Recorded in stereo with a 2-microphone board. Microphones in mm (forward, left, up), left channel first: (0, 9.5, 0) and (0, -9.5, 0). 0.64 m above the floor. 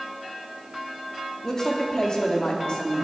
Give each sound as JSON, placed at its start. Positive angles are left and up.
{"t": 1.4, "sound": "a woman speaking", "side_deg": 25, "distance_m": 1.0}